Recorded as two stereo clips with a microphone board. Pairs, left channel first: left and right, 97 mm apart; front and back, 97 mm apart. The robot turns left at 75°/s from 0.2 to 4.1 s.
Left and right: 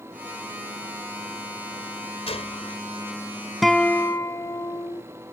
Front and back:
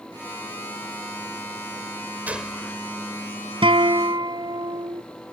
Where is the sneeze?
I don't hear a sneeze.